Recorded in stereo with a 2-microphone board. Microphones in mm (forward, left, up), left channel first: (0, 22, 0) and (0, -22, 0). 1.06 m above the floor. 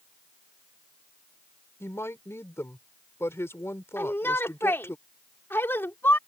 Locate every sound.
1.8 s a woman speaking: 80° left
4.0 s a shout: 65° left (ahead or behind)